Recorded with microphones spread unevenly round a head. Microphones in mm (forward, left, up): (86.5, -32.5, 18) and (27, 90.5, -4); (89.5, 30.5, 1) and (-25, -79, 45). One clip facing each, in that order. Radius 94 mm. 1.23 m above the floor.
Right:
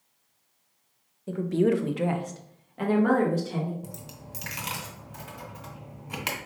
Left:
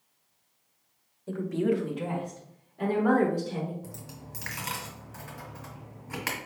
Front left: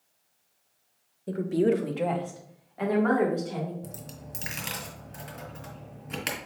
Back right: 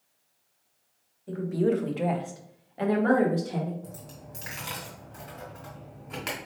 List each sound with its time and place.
1.3 s a woman speaking: 15° left, 0.8 m; by 3.7 s 85° right, 2.5 m
3.8 s a dropped coin: 10° right, 2 m